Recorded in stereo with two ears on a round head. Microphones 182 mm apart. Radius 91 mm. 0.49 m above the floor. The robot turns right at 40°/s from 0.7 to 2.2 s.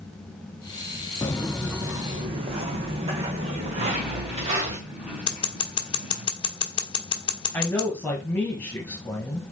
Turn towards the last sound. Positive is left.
turn(degrees=10)  # may be behind; listen again after turning